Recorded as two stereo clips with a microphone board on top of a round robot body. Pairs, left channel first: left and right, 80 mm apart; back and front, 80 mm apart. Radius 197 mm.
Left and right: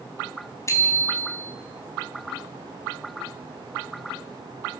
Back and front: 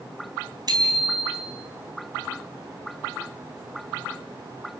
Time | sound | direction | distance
0.7 | a bicycle bell | 35° left | 4 m